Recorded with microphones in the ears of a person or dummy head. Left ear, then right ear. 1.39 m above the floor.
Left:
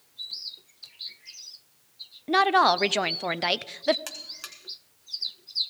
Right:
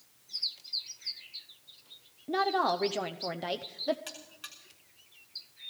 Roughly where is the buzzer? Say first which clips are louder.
Left 7 dB; left.